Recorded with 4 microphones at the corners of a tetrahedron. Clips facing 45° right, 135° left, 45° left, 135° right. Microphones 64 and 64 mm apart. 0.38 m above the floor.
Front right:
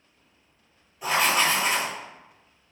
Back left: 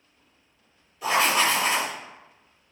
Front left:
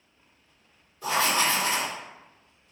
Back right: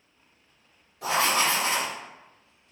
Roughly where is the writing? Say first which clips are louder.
Back left 1 dB, back right 1 dB; behind right.